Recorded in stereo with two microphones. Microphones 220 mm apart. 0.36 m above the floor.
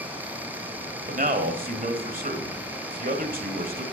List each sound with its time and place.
1.1 s a man speaking: 40° right (ahead or behind), 1.5 m